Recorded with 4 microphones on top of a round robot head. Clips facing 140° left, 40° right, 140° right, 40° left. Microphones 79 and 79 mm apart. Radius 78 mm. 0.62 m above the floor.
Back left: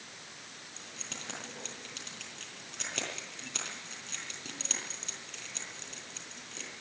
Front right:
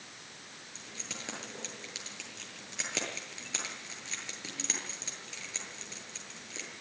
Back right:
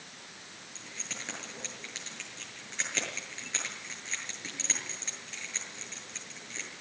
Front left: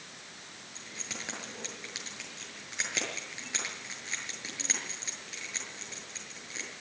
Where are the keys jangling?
35° right, 7.5 m.